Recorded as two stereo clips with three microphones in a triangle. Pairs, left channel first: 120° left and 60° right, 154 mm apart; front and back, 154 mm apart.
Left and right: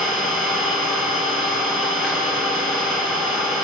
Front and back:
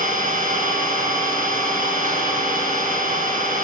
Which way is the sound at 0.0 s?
155° right.